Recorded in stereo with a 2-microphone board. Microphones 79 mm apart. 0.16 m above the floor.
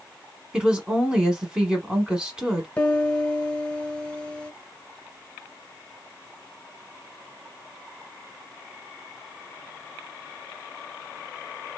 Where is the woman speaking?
10° right (ahead or behind), 1.0 m.